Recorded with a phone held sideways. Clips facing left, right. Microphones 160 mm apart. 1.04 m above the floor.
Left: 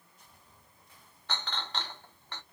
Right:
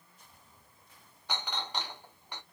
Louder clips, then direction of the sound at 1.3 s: Right 1 dB; 10° right (ahead or behind).